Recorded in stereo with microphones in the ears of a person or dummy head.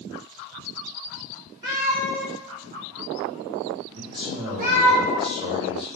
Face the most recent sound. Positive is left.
turn(degrees=-25)  # may be behind; listen again after turning